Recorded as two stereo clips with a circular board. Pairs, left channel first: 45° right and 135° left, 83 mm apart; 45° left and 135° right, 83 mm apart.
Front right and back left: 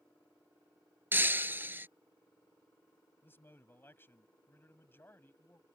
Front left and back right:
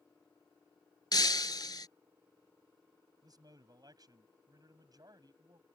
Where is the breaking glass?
70° left.